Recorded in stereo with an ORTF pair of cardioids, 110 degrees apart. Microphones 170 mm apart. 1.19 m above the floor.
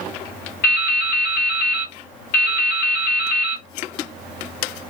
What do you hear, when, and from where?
0.6 s dripping: 60° left, 1.3 m